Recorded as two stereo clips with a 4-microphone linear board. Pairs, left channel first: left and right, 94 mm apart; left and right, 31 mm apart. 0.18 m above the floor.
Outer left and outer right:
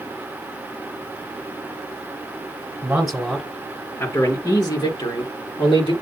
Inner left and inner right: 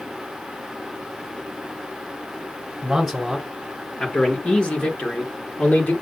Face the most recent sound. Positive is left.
turn(degrees=65)  # may be behind; listen again after turning